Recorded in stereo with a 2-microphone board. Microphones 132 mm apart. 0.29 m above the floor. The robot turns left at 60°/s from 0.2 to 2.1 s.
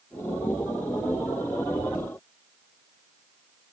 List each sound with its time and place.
Only background noise.